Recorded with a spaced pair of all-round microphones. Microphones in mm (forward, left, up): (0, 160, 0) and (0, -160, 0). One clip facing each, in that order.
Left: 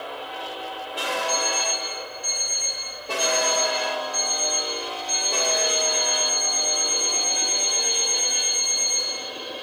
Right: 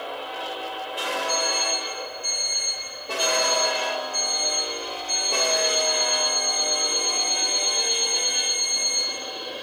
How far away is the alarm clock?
About 1.5 m.